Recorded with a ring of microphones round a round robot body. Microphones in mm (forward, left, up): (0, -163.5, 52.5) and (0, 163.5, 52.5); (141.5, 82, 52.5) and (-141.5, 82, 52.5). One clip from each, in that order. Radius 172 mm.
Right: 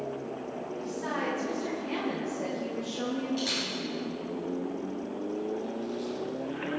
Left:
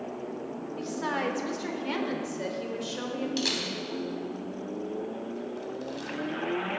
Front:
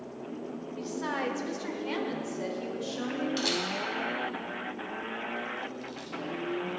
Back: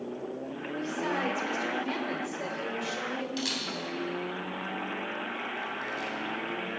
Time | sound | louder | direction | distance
0.8 | a woman speaking | left 3 dB, back 2 dB | 65° left | 2.5 m
3.4 | a camera shutter | left 3 dB, front 4 dB | 80° left | 3.5 m